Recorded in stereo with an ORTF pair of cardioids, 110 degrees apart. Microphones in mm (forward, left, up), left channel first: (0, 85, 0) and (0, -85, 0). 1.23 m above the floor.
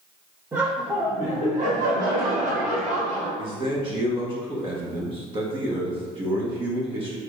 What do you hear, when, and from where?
0.5 s laughter: 15° right, 1.4 m; by 3.3 s 50° right, 3.5 m
3.4 s a man speaking: 30° right, 1.2 m